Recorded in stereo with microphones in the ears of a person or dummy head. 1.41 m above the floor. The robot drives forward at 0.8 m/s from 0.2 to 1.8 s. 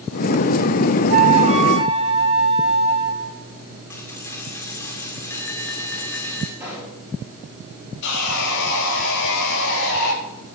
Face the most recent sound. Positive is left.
turn(degrees=65)  # may be behind; listen again after turning